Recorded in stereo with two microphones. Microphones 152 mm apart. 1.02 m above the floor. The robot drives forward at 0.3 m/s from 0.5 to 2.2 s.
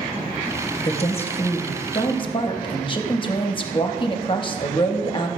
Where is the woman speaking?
45° left (ahead or behind), 0.7 m; by 5.3 s 35° left (ahead or behind), 0.8 m.